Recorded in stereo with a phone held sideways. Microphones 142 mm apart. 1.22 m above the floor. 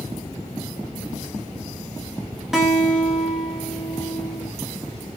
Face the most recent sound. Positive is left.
turn(degrees=-5)  # may be behind; listen again after turning